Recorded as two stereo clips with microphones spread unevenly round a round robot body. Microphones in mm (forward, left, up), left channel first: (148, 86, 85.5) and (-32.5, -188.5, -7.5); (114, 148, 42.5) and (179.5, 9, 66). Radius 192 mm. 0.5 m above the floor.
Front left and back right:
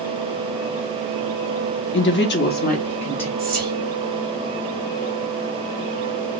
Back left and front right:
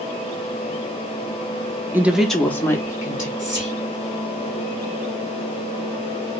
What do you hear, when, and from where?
1.9 s a woman speaking: 15° left, 0.6 m; by 3.3 s 145° left, 0.8 m
3.4 s whispering: 130° right, 1.5 m